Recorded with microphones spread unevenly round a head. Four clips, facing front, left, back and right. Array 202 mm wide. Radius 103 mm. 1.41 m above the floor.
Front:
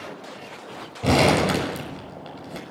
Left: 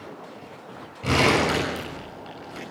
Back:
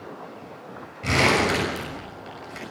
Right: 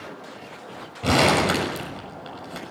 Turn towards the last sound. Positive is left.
turn(degrees=-20)